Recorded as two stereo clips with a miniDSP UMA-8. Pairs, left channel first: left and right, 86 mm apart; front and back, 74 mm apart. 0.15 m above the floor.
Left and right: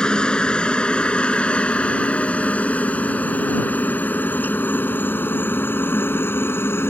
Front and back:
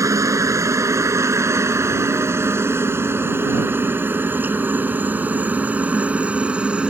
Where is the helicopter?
165° left; by 6.9 s 120° left.